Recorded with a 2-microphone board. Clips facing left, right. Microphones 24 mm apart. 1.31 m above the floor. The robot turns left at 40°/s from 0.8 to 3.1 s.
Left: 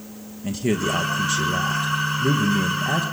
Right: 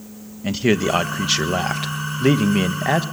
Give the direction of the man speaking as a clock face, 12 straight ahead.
1 o'clock.